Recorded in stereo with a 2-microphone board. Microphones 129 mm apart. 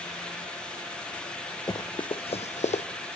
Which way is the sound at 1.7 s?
25° left (ahead or behind).